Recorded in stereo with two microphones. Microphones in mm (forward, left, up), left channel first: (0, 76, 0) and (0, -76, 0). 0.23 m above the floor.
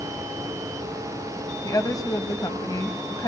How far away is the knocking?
No knocking in this recording.